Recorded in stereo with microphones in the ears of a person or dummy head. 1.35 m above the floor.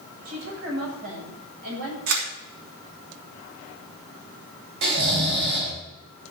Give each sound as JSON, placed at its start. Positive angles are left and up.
{"t": 0.2, "sound": "a woman speaking", "side_deg": -60, "distance_m": 8.0}
{"t": 2.1, "sound": "a camera shutter", "side_deg": -75, "distance_m": 4.5}
{"t": 4.8, "sound": "snoring", "side_deg": -60, "distance_m": 4.0}